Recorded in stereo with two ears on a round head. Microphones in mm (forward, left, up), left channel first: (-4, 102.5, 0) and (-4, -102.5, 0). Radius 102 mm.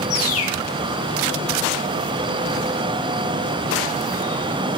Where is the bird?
70° left (ahead or behind), 1.2 m.